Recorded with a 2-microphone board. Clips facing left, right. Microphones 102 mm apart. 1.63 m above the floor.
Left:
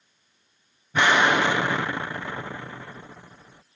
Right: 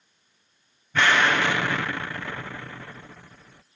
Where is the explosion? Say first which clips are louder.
Left 2 dB; 20° left (ahead or behind).